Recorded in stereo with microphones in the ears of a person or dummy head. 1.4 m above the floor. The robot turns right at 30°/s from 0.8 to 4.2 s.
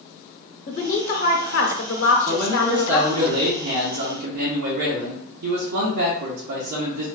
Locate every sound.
0.7 s a woman speaking: 40° left, 0.9 m; by 3.3 s 115° left, 0.9 m
2.3 s a man speaking: 160° right, 0.5 m; by 7.0 s 105° right, 0.5 m